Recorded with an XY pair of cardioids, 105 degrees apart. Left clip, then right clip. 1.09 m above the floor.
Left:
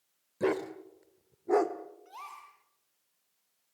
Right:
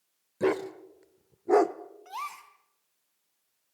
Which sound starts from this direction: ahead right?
A gasp, at 2.0 s.